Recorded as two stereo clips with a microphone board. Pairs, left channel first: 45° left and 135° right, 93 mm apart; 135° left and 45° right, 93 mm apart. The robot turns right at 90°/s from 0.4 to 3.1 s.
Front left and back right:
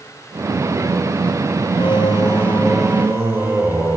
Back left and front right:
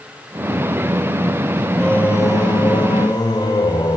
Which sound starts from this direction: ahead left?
Singing, at 1.8 s.